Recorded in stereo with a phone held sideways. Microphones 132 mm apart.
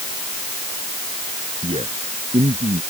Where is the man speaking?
55° right (ahead or behind).